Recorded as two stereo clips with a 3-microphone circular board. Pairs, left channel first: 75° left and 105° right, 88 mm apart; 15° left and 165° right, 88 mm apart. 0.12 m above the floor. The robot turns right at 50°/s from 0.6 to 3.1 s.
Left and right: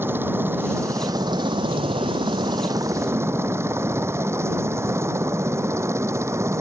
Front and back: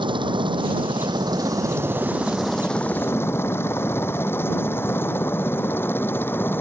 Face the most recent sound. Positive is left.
turn(degrees=-50)